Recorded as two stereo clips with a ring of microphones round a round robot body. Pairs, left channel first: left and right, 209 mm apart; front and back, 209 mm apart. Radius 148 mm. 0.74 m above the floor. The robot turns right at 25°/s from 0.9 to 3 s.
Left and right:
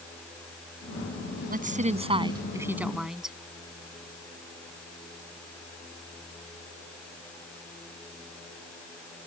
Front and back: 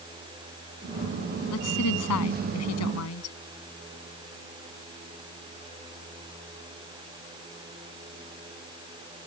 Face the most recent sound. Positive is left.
turn(degrees=0)